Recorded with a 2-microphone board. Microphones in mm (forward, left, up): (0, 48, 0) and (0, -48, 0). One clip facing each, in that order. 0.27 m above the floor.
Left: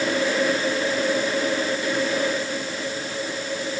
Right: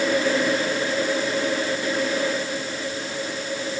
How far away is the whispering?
No whispering in this recording.